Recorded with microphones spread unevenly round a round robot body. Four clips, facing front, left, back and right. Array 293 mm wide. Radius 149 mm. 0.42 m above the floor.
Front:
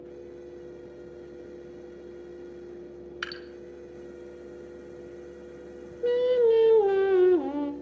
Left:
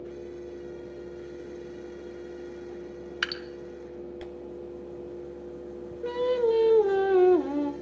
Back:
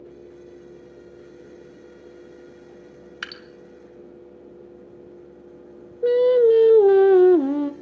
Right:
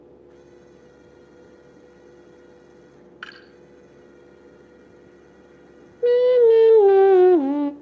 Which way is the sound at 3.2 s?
90° left.